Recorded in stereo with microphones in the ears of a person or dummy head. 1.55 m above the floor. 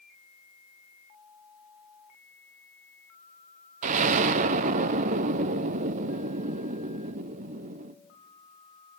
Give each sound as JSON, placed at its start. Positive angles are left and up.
{"t": 3.8, "sound": "an explosion", "side_deg": -40, "distance_m": 0.6}